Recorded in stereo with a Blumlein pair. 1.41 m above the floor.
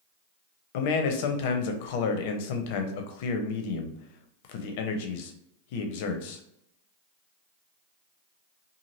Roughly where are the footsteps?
No footsteps in this recording.